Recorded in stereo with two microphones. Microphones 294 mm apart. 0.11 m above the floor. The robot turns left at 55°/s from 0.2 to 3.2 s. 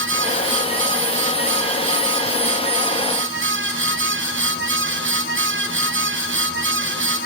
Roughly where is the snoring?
I don't hear snoring.